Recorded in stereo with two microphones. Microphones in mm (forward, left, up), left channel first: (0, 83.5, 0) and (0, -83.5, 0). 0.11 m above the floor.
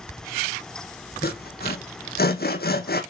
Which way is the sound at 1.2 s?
70° left (ahead or behind).